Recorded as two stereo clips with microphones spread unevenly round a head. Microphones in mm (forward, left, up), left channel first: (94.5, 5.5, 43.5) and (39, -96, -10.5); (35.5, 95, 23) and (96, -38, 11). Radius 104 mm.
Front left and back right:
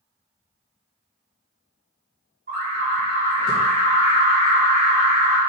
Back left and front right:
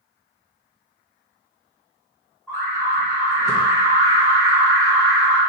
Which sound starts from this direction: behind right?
An alarm, at 2.5 s.